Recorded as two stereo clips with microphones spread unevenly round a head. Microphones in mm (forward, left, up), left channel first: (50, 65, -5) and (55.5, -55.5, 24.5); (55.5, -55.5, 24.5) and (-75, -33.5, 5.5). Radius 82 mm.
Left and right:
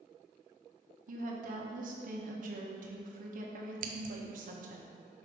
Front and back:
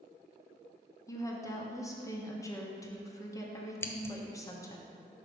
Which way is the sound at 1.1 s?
75° right.